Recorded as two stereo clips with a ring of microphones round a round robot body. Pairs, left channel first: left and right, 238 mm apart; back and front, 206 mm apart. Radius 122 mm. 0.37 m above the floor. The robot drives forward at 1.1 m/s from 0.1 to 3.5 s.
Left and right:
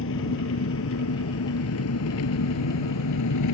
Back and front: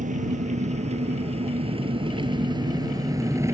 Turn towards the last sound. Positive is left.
turn(degrees=75)